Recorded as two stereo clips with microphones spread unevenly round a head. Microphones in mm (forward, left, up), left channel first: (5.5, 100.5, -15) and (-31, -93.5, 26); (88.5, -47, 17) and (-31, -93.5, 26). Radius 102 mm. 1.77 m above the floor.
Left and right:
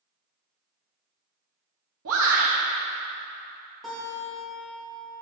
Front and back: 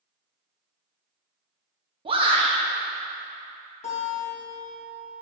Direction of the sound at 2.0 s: 110° right.